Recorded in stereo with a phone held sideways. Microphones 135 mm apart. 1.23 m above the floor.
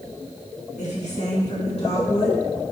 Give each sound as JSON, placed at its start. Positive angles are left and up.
{"t": 0.8, "sound": "a woman speaking", "side_deg": 60, "distance_m": 1.7}